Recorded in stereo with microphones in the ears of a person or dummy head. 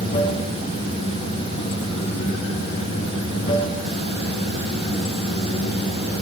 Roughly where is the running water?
Left.